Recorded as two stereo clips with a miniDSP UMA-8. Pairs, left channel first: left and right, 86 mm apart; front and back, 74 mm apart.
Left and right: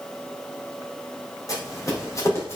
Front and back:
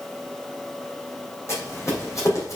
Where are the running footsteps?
45° left, 3.5 m; by 2.6 s 35° left, 3.5 m.